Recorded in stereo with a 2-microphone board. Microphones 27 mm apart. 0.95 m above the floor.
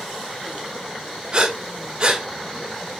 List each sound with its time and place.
1.3 s breathing: 35° right (ahead or behind), 0.8 m